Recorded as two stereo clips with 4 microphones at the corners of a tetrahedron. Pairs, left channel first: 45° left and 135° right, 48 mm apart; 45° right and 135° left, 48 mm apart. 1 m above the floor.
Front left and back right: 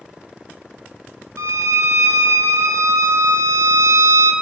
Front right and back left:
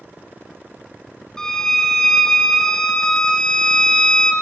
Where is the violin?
125° right, 0.5 m.